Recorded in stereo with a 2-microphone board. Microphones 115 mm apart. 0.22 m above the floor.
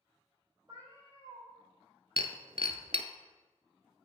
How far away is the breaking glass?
About 0.7 m.